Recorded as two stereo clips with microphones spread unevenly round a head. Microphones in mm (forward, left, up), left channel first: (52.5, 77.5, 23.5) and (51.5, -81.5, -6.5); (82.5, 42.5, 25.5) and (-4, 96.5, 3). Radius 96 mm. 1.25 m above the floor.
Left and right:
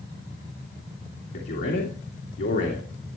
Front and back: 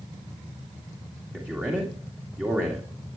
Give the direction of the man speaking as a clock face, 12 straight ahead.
10 o'clock.